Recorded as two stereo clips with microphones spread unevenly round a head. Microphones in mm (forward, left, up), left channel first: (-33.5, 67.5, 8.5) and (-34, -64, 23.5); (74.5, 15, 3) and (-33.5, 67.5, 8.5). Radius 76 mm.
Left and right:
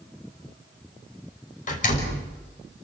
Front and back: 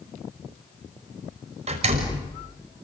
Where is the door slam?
120° left, 5.5 m.